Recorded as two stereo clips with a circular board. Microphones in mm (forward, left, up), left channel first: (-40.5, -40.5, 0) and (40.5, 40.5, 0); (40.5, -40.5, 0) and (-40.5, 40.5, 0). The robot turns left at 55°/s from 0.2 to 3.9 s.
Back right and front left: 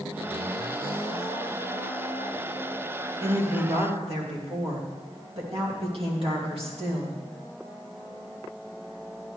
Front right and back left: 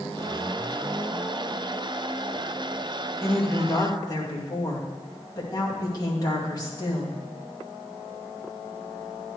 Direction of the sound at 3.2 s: 50° left.